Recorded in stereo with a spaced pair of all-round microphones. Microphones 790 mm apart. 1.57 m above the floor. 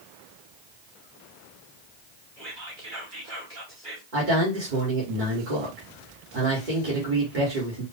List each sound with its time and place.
2.4 s whispering: 80° right, 2.5 m
4.1 s a man speaking: 75° right (ahead or behind), 1.7 m